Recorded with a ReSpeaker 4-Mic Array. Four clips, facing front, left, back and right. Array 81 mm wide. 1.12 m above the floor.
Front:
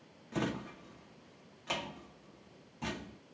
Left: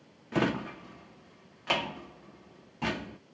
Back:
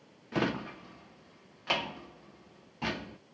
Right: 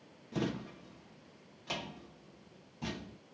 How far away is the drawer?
About 0.5 m.